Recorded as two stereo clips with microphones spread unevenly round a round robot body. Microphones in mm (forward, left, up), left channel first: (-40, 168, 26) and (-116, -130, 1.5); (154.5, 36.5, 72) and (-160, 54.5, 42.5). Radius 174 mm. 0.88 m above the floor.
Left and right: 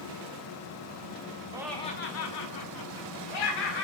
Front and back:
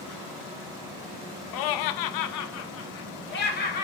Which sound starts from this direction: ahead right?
Laughter, at 1.5 s.